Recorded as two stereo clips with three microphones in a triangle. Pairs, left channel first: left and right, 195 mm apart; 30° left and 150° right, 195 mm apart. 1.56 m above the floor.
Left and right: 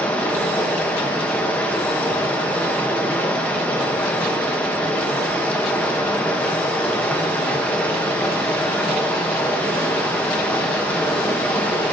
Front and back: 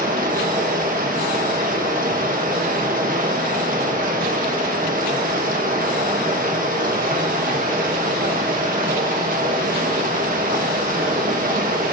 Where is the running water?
170° left, 1.3 m.